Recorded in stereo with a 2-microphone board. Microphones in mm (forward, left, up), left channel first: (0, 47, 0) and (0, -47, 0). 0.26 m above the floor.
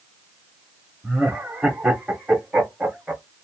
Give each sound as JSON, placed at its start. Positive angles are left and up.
{"t": 1.0, "sound": "laughter", "side_deg": -5, "distance_m": 0.9}